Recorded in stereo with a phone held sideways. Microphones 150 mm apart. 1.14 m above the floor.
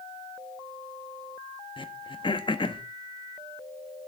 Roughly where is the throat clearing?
Left.